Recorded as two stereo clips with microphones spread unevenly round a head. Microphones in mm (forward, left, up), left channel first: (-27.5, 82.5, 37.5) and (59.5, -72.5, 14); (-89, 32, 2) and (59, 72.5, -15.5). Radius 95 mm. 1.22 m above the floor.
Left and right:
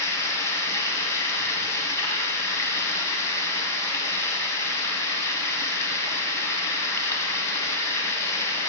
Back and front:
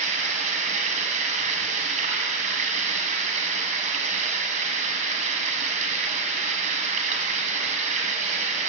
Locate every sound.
0.0 s running water: 50° left, 2.0 m